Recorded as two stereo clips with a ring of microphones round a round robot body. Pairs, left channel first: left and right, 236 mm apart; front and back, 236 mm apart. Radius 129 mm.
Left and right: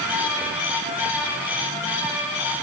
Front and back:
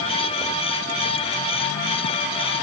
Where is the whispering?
I don't hear whispering.